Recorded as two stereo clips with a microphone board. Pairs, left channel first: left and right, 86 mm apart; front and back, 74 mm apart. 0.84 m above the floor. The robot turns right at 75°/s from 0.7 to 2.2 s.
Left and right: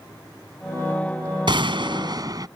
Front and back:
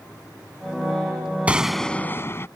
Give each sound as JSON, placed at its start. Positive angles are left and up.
{"t": 1.5, "sound": "a gunshot", "azimuth_deg": -110}